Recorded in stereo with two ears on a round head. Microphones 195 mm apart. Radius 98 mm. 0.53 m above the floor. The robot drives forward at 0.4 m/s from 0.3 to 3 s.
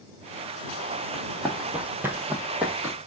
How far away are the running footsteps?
About 1.2 m.